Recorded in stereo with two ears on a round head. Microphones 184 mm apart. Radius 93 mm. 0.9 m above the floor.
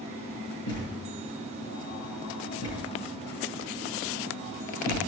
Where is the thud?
80° left, 8 m.